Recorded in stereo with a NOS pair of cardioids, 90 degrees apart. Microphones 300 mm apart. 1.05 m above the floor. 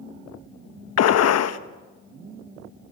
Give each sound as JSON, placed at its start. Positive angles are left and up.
{"t": 1.0, "sound": "a gunshot", "azimuth_deg": 60, "distance_m": 1.0}